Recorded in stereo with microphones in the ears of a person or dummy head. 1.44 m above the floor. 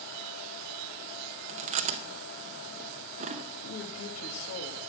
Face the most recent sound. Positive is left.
turn(degrees=80)